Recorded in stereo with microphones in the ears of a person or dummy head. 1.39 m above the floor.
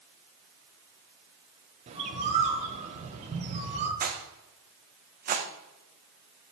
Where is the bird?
40° right (ahead or behind), 1.4 m.